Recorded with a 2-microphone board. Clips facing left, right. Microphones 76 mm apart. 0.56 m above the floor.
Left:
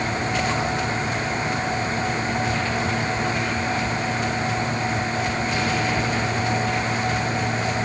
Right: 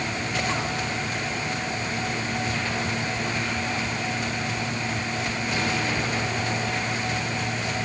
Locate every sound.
Only background noise.